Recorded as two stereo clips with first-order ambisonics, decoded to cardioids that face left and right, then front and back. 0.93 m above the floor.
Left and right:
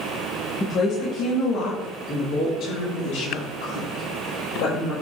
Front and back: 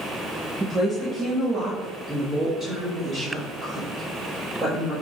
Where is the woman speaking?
100° left, 0.7 m; by 4.9 s 90° left, 3.5 m.